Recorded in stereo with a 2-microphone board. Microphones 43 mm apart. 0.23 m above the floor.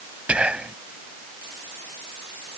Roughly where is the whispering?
Right.